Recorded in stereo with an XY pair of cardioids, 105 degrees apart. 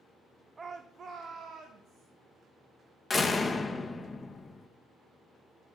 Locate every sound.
0.6 s a shout: 30° right, 0.6 m; by 2.1 s 50° right, 1.8 m
3.1 s a door slam: 20° left, 0.9 m